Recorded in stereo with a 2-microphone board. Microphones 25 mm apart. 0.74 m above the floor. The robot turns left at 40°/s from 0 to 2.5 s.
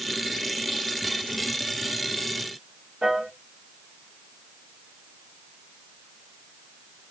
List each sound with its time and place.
3.0 s a piano: 45° right (ahead or behind), 1.2 m